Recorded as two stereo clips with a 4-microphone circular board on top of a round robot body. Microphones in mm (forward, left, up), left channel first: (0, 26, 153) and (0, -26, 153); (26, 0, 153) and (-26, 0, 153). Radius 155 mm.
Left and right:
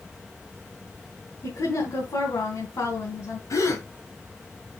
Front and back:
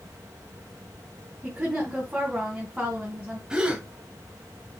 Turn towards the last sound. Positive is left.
turn(degrees=105)